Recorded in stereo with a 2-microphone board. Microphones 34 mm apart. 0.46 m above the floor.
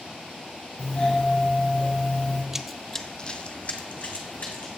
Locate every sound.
0.8 s a doorbell: 40° left (ahead or behind), 3 m
2.5 s running footsteps: 15° right (ahead or behind), 0.6 m; by 4.7 s 50° left (ahead or behind), 2.0 m